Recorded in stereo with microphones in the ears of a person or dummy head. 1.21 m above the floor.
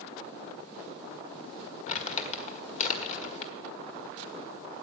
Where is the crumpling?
40° left (ahead or behind), 1.6 m.